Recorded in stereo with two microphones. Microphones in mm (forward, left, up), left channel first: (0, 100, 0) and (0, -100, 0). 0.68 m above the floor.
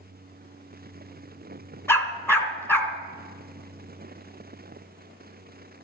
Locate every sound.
1.9 s a dog barking: 10° left (ahead or behind), 1.9 m